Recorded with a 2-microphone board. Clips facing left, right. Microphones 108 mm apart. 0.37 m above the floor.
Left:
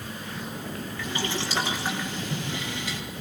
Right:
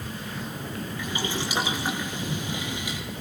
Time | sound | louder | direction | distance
1.0 | boiling | even | 10° right (ahead or behind) | 6 m